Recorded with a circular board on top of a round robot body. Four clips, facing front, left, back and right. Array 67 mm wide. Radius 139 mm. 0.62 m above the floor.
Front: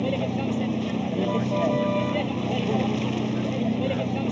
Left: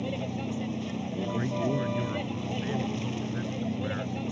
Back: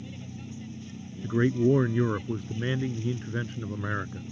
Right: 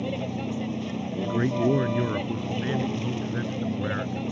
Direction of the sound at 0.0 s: 10° right.